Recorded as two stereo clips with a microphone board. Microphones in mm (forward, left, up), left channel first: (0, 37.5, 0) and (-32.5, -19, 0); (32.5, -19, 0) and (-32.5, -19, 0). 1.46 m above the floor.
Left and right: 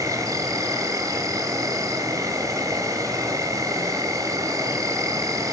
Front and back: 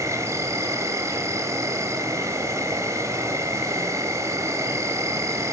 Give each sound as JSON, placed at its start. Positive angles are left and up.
{"t": 0.0, "sound": "an insect", "azimuth_deg": -145, "distance_m": 2.5}